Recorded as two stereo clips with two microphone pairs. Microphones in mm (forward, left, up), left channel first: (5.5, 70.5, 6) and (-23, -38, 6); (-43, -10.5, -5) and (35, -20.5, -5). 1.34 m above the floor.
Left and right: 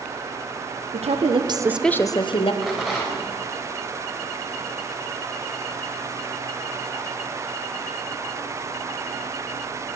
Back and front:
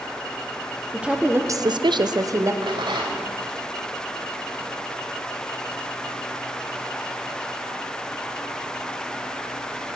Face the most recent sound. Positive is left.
turn(degrees=-15)